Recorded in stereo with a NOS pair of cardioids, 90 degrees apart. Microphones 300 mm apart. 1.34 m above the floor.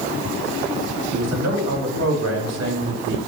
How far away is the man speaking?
About 3.5 m.